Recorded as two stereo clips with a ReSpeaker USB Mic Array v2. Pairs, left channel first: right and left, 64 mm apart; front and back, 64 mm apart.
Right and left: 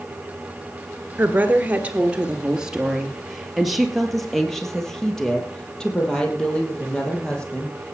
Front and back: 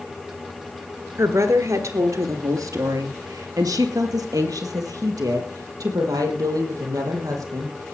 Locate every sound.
1.2 s a woman speaking: 145° left, 2 m; by 8.0 s 160° right, 5.5 m